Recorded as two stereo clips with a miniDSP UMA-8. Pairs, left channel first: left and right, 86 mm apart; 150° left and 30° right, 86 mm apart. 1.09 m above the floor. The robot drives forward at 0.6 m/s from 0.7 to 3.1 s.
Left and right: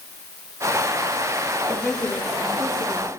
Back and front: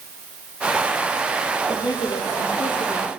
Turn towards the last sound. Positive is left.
turn(degrees=180)